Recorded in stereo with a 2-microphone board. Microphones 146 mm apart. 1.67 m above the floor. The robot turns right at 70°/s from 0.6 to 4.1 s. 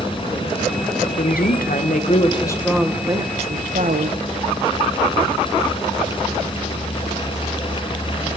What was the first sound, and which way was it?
A woman speaking, 65° left.